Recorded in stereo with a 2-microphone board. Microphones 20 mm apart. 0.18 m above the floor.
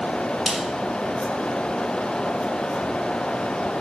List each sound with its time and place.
0.5 s a snare drum: 5° left (ahead or behind), 3 m